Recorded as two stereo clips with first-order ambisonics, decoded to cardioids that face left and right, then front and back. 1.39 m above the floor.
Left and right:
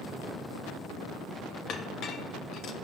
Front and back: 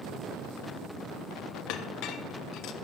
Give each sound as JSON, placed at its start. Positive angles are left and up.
{"t": 1.7, "sound": "a clink", "azimuth_deg": 35, "distance_m": 1.2}